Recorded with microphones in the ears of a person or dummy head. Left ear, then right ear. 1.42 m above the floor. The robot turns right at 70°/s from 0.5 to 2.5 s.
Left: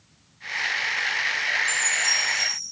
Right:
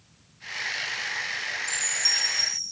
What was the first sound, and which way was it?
A chime, 25° right (ahead or behind).